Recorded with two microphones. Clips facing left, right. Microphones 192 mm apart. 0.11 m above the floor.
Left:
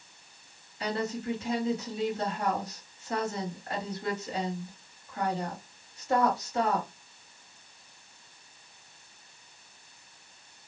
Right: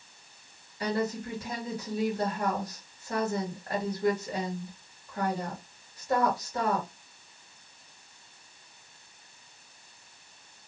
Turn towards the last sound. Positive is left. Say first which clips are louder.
# right 2 dB
turn(degrees=-30)  # may be behind; listen again after turning